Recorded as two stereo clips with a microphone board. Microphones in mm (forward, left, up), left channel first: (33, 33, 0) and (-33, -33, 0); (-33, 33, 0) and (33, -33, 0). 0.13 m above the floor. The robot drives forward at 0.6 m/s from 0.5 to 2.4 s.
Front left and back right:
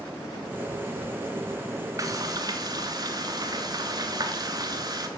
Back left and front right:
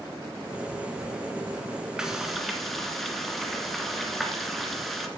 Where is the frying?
125° right, 1.3 m; by 5.1 s 135° right, 1.4 m.